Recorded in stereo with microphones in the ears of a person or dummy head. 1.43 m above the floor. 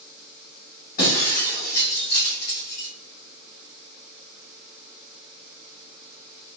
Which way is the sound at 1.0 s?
50° left (ahead or behind).